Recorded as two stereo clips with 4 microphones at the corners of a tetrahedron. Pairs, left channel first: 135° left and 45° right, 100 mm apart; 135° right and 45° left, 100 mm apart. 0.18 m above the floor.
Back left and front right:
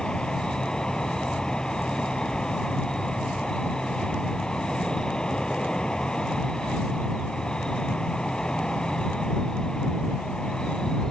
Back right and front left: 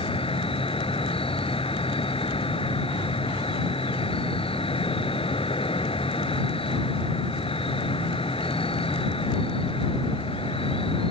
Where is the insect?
140° right.